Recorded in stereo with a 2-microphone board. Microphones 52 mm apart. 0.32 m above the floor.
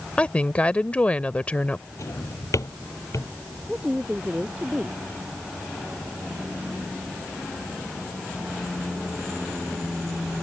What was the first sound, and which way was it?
A woman speaking, 25° left (ahead or behind).